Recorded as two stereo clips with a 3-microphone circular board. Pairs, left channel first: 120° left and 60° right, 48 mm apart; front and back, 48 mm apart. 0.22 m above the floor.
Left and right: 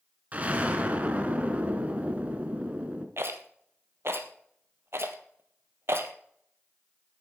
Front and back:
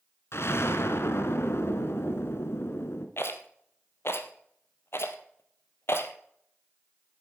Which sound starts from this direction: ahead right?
A rattle, at 3.2 s.